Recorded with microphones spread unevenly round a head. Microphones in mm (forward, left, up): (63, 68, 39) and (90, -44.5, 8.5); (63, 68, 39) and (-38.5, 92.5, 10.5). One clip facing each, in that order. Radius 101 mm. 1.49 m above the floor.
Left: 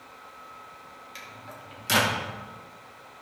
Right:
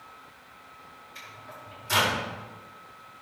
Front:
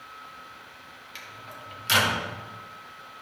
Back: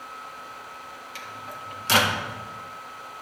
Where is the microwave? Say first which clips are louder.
Even, back 4 dB; 115° left, 1.9 m.